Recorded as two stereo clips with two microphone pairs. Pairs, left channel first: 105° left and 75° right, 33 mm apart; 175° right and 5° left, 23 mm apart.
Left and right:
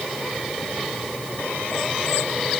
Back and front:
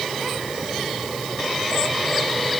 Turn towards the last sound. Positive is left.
No sound to turn to.